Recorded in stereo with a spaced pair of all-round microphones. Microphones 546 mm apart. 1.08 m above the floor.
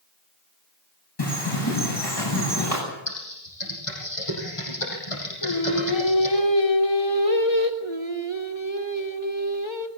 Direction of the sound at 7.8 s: 55° left (ahead or behind).